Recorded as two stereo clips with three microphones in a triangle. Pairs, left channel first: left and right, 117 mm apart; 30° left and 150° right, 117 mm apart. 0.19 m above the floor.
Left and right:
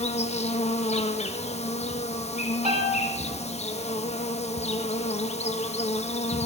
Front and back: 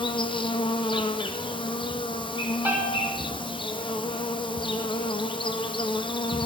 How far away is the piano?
About 1.9 m.